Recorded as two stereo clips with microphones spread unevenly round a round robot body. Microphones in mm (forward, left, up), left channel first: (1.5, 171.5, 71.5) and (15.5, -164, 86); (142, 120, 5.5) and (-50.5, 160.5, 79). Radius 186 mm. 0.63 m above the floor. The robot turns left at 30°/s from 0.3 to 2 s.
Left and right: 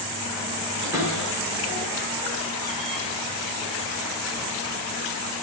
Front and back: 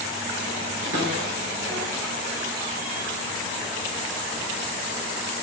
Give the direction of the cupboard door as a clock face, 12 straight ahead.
6 o'clock.